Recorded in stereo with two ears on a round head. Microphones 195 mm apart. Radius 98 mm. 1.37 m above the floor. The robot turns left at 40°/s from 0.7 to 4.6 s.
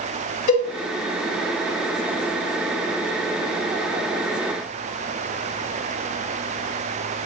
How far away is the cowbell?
About 1.9 m.